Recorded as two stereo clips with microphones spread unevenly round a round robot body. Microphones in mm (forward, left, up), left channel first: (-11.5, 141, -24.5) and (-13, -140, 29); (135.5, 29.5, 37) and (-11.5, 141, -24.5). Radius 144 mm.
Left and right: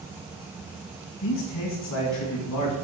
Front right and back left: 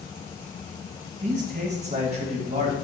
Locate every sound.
1.2 s a man speaking: 105° left, 3.5 m; by 2.7 s 95° left, 2.5 m